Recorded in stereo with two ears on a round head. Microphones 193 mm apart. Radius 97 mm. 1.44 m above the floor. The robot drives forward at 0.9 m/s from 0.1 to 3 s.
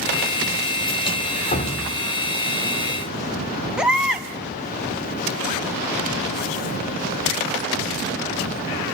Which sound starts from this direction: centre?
A baby crying, at 3.8 s.